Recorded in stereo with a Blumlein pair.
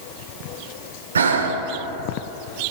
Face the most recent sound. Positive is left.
turn(degrees=-70)